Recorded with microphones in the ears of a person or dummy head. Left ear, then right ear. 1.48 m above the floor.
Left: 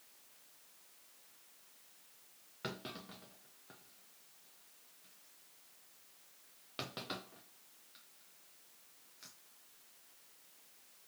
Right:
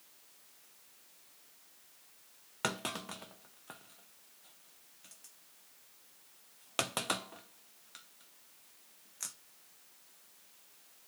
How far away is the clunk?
About 0.7 m.